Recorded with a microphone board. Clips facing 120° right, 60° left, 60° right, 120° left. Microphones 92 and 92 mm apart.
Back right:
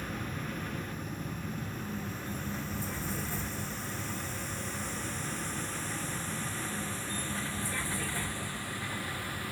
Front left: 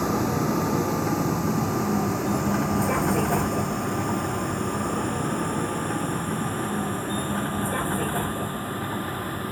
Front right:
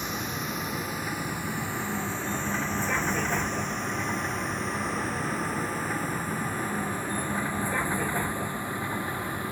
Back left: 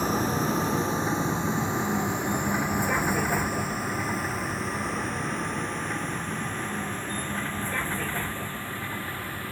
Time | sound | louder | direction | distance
0.0 | a vehicle | front left 15 dB, back left 8 dB | 65° left | ?